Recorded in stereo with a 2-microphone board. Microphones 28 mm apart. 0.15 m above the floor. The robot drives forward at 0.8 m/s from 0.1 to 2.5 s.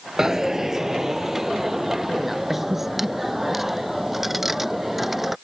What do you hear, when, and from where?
0.2 s a dropped coin: 15° right (ahead or behind); by 5.4 s 5° right (ahead or behind)